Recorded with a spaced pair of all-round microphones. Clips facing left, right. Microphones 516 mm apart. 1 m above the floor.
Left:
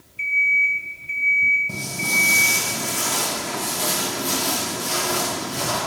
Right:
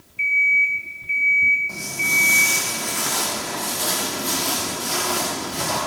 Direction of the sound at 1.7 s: 50° left (ahead or behind).